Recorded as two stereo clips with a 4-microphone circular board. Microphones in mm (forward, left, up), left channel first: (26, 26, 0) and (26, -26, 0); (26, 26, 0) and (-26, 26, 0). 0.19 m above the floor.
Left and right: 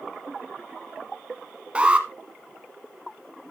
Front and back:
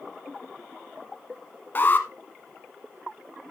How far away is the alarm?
About 1.2 m.